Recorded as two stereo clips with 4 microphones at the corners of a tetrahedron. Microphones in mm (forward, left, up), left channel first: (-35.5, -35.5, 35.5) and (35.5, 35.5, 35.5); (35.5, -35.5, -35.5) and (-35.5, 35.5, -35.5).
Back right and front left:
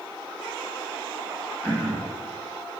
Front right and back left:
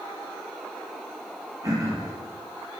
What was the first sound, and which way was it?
Throat clearing, 160° left.